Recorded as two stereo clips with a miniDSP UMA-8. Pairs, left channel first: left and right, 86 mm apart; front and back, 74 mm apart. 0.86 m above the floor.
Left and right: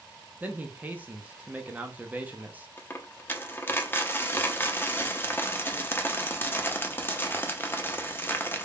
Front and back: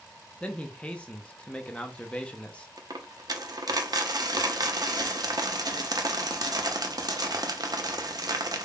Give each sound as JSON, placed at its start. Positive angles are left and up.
{"t": 0.4, "sound": "a man speaking", "azimuth_deg": -50, "distance_m": 0.6}
{"t": 2.8, "sound": "a dropped coin", "azimuth_deg": 155, "distance_m": 0.6}